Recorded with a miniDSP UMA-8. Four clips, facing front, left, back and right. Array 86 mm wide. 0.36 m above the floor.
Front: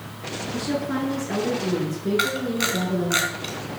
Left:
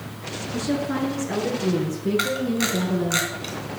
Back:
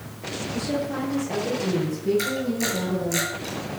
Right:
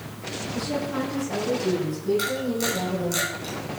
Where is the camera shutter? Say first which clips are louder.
Left 2 dB, front 1 dB; 35° left, 3 m.